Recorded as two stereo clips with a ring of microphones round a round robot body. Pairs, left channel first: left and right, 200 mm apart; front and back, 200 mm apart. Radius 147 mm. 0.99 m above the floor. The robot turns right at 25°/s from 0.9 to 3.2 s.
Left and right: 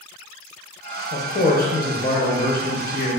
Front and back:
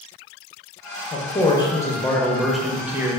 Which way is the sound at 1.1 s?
55° left.